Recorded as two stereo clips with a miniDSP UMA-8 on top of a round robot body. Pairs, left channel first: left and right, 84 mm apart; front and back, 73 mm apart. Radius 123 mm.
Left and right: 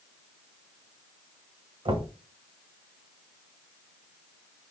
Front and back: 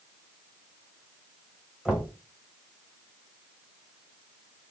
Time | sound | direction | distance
1.9 | knocking | 100° right | 2 m